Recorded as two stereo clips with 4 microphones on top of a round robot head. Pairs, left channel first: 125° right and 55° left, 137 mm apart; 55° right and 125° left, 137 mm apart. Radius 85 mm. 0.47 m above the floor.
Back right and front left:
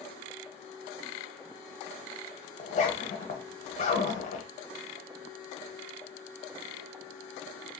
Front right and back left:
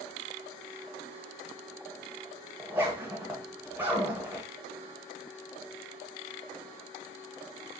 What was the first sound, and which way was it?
A zipper, 160° right.